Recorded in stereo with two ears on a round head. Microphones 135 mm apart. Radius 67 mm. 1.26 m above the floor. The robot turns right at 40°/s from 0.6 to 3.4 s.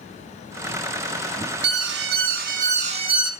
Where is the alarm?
95° right, 2.5 m; by 3.3 s 30° right, 2.5 m.